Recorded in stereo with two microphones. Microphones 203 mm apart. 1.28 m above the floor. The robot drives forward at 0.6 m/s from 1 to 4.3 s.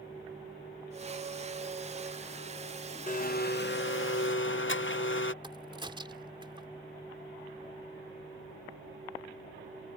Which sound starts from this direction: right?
A crack, at 5.4 s.